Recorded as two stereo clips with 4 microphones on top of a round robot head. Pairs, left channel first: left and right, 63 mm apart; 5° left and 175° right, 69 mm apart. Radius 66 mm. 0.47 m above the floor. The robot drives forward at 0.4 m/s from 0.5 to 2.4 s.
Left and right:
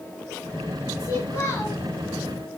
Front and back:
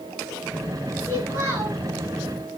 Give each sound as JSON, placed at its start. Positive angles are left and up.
{"t": 1.0, "sound": "a child speaking", "azimuth_deg": 135, "distance_m": 6.5}